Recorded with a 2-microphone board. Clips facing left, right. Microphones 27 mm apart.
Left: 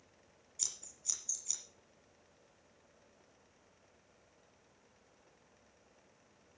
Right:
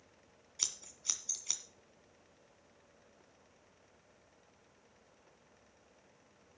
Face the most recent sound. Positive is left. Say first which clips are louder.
# right 4 dB
turn(degrees=-45)  # may be behind; listen again after turning